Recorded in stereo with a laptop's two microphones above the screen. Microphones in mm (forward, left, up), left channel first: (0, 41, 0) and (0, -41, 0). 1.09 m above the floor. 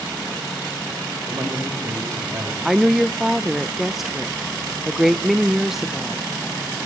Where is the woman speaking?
5° right (ahead or behind), 0.5 m.